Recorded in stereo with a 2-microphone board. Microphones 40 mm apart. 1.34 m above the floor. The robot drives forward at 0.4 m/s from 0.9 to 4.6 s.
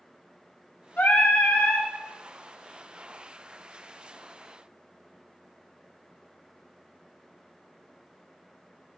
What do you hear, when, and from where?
1.0 s singing: 50° left (ahead or behind), 1.1 m; by 1.9 s 45° left (ahead or behind), 1.2 m